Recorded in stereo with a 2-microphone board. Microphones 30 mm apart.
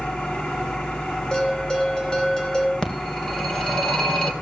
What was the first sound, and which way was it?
An engine running, 50° left (ahead or behind).